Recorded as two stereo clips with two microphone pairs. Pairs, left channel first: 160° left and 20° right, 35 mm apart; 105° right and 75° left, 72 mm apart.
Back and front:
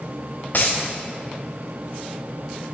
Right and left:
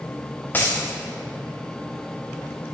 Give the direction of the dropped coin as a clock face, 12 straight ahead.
6 o'clock.